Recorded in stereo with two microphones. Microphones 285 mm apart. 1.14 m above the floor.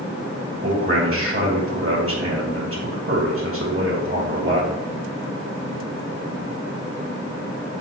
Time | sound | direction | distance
0.6 | a man speaking | 50° right (ahead or behind) | 2 m